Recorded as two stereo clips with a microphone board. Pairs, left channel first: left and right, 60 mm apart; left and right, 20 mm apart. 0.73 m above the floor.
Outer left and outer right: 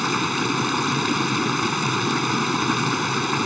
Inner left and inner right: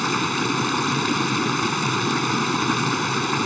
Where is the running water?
Centre (ahead or behind).